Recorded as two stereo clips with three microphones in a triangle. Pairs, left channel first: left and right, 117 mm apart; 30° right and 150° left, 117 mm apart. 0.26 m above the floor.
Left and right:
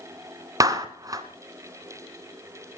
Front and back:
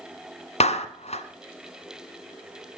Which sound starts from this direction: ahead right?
A clap, at 0.6 s.